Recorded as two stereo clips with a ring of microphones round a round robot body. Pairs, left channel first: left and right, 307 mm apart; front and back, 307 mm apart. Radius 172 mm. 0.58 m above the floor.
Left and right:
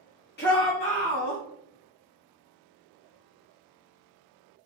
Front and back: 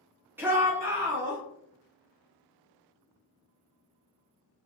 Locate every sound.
0.4 s a shout: 100° left, 0.7 m; by 1.4 s 105° left, 1.1 m